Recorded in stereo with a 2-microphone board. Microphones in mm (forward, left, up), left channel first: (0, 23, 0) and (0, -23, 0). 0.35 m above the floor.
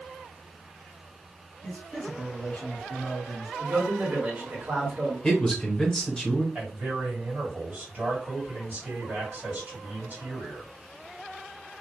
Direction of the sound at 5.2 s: 15° left (ahead or behind).